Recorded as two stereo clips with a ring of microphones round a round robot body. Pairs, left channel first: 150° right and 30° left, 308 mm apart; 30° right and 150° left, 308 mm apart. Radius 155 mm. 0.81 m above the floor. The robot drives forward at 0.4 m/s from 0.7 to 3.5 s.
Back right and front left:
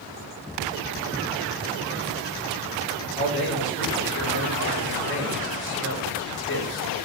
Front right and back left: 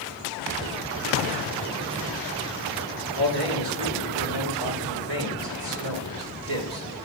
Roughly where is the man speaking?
Behind.